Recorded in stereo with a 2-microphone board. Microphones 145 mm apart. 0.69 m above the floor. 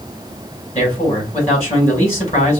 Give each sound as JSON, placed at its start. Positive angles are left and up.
{"t": 0.8, "sound": "a man speaking", "side_deg": 50, "distance_m": 4.0}